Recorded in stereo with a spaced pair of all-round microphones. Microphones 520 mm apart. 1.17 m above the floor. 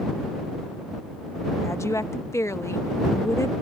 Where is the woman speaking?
5° left (ahead or behind).